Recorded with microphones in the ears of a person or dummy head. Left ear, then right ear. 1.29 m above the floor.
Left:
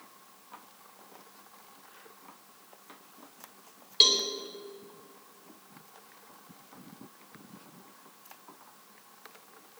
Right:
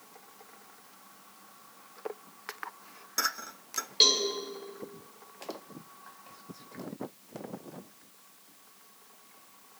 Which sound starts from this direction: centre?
A cowbell, at 4.0 s.